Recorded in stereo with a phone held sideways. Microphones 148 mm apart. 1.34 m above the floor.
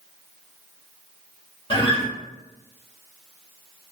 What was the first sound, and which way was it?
A guitar, 35° left (ahead or behind).